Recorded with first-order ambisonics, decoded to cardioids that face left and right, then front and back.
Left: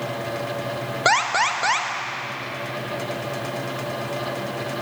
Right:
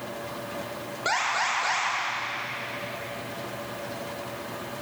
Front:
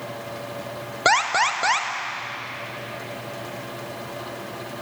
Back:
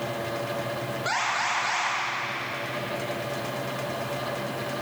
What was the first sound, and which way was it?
An alarm, 35° left.